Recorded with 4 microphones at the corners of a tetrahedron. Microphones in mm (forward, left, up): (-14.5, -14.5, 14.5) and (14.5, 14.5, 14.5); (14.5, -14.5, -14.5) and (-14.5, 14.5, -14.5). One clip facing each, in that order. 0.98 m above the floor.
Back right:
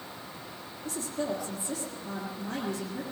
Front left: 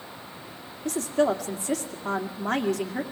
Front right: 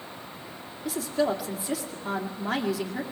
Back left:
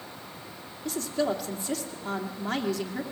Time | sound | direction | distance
0.8 | a woman speaking | 35° left | 2 m